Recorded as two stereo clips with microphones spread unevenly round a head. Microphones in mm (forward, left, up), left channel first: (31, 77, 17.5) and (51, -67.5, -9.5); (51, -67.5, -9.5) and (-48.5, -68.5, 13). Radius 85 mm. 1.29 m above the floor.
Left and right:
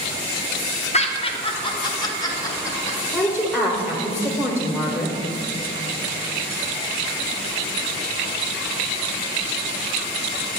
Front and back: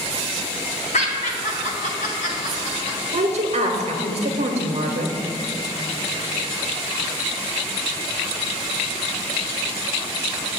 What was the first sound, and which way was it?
Laughter, 50° left.